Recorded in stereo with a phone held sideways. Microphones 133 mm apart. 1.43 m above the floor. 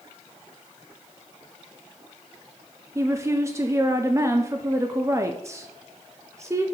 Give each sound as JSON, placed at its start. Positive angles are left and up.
{"t": 3.0, "sound": "a woman speaking", "side_deg": -20, "distance_m": 0.7}